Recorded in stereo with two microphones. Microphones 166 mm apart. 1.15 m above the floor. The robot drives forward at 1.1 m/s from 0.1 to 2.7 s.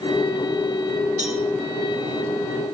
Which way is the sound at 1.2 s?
45° right (ahead or behind).